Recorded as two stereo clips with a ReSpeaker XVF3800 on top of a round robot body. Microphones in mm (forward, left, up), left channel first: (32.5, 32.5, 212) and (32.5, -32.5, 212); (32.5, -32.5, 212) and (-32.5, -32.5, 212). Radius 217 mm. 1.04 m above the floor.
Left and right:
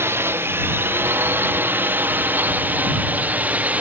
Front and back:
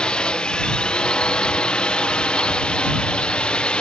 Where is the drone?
70° right; by 3.8 s 55° right.